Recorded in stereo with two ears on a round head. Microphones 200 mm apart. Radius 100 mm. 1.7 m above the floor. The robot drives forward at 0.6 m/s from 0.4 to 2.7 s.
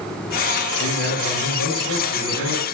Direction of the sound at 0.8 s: 80° left.